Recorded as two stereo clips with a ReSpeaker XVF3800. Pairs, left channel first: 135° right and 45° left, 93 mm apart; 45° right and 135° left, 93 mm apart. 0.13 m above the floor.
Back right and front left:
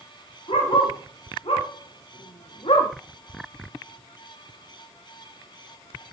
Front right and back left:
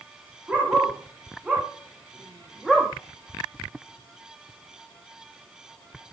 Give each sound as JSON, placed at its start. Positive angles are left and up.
{"t": 0.5, "sound": "a dog barking", "azimuth_deg": -145, "distance_m": 5.5}